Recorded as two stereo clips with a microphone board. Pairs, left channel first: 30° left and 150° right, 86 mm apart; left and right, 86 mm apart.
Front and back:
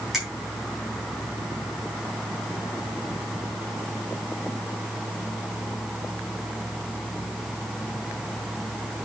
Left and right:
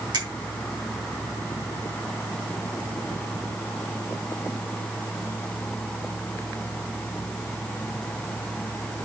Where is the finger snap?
60° right, 3.5 m.